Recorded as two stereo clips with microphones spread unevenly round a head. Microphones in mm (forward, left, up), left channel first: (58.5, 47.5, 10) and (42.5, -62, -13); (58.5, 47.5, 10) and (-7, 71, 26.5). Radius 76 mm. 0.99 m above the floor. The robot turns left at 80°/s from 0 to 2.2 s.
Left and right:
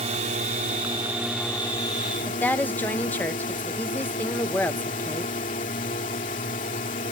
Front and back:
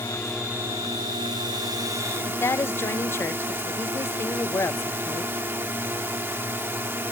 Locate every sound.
0.0 s a drone: 80° right; by 7.1 s 105° left
2.3 s a woman speaking: straight ahead